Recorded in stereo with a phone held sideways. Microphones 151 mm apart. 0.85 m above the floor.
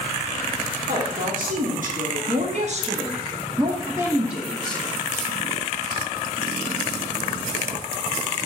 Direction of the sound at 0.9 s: 70° right (ahead or behind).